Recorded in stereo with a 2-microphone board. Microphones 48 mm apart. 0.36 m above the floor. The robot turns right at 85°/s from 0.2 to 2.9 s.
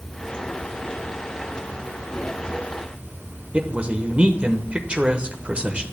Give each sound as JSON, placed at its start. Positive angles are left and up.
{"t": 0.0, "sound": "running water", "azimuth_deg": 5, "distance_m": 2.5}
{"t": 3.5, "sound": "a man speaking", "side_deg": -25, "distance_m": 0.8}